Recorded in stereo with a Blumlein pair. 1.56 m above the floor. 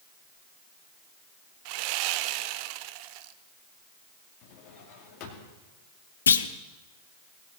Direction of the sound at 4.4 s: 40° left.